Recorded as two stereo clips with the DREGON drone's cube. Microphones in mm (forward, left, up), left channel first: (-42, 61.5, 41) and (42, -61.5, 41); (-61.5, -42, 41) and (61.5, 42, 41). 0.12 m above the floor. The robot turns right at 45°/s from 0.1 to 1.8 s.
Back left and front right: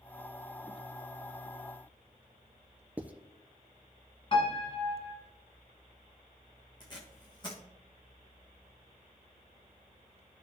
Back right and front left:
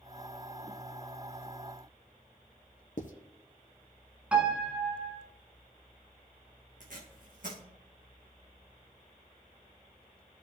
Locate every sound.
3.0 s writing: 135° right, 0.8 m
4.3 s a piano: 110° left, 1.8 m
6.8 s tape being pulled: 65° left, 2 m